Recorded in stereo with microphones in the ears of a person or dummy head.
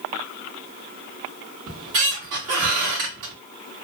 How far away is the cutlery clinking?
I don't hear cutlery clinking.